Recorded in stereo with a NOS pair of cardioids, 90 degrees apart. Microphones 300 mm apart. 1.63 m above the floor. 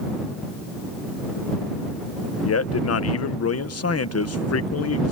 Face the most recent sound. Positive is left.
turn(degrees=55)